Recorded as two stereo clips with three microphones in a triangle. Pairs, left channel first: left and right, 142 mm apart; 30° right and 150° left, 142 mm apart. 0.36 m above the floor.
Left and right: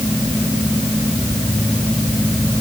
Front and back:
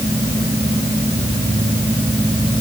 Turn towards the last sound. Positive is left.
No sound to turn to.